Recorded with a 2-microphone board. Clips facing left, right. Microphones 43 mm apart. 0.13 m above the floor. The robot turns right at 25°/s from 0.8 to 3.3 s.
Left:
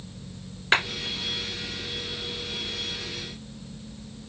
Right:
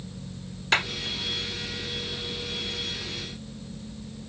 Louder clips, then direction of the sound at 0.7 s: Left 2 dB; 25° left (ahead or behind).